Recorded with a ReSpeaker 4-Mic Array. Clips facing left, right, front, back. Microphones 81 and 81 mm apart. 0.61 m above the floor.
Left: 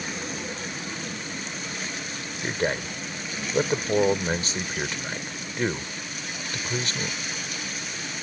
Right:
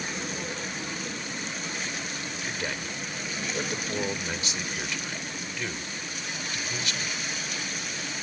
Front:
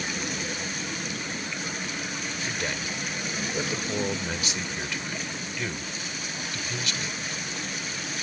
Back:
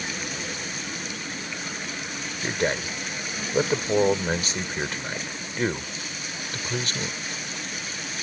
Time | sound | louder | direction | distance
2.4 | a man speaking | left 9 dB, back 9 dB | 140° left | ?